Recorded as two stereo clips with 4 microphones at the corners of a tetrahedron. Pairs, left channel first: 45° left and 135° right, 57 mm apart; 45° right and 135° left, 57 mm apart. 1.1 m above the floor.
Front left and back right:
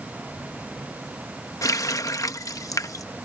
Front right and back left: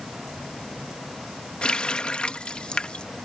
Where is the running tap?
30° left.